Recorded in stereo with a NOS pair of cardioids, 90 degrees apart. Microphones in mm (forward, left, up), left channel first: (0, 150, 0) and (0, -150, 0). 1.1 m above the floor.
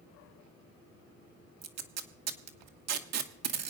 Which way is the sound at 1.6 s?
60° right.